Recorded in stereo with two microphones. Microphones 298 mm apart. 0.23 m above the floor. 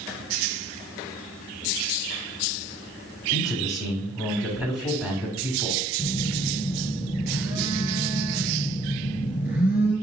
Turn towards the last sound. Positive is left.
turn(degrees=30)  # may be behind; listen again after turning